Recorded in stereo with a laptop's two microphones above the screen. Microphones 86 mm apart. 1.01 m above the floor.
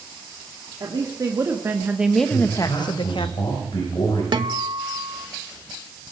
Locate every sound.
0.8 s a woman speaking: 50° right (ahead or behind), 1.9 m; by 3.3 s 75° left (ahead or behind), 1.2 m
2.3 s a man speaking: 75° left (ahead or behind), 5.5 m
4.3 s a guitar: 60° right (ahead or behind), 1.0 m